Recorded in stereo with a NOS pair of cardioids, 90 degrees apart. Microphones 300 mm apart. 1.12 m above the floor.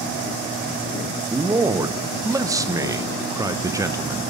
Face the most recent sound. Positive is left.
turn(degrees=-10)